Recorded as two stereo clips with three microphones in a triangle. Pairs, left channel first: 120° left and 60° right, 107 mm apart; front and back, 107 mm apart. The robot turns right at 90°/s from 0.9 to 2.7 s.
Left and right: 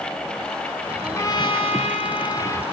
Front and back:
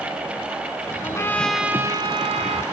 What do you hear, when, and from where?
1.0 s a trumpet: 45° left, 0.7 m; by 2.6 s 170° right, 0.7 m